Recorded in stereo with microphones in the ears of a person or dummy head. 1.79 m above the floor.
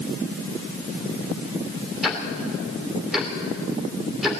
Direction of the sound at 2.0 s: Centre (ahead or behind).